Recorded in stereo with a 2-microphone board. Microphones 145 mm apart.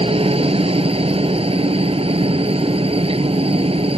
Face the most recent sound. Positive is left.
turn(degrees=-40)  # may be behind; listen again after turning